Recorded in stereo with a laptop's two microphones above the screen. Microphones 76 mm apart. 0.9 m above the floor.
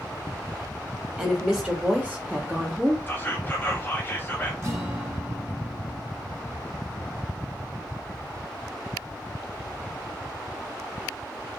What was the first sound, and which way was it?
A woman speaking, 20° right (ahead or behind).